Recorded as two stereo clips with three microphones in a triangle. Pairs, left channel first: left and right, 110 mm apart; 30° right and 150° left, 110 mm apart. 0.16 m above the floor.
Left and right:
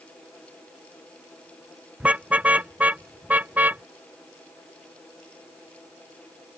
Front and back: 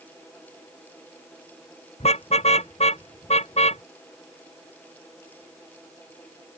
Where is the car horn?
10° right; by 3.8 s 15° right.